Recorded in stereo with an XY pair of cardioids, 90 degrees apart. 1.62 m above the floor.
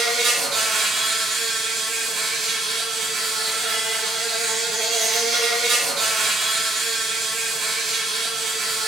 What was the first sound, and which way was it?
An insect, 70° right.